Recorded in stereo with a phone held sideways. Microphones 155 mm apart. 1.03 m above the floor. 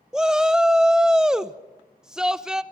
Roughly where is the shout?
Centre.